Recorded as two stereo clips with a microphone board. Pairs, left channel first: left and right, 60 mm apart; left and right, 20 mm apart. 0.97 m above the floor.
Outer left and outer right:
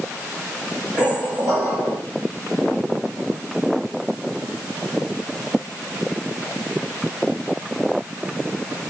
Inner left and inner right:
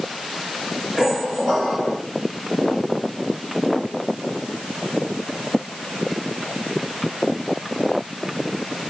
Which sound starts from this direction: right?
A squeak, at 1.0 s.